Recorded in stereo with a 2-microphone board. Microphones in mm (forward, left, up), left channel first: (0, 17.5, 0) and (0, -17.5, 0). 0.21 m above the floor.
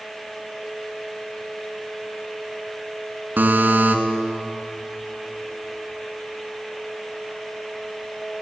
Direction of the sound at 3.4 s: 60° right (ahead or behind).